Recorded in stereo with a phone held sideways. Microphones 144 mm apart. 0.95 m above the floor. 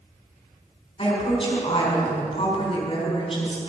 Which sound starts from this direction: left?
A woman speaking, at 1.0 s.